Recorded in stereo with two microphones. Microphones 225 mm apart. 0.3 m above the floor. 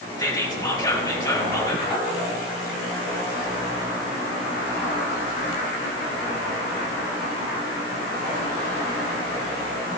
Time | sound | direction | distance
0.2 | whispering | 15° left (ahead or behind) | 1.2 m